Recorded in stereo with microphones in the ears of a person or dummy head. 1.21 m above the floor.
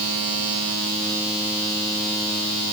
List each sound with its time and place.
Only background noise.